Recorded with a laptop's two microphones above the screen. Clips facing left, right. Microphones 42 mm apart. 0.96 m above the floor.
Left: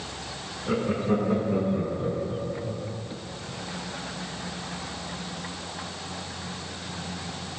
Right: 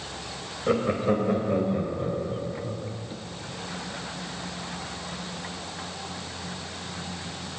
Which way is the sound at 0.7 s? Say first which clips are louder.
Right 2 dB; 55° right (ahead or behind).